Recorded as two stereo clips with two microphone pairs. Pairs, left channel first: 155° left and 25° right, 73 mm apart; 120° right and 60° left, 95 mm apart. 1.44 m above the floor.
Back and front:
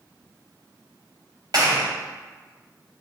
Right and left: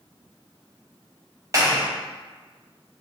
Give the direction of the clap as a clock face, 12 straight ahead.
12 o'clock.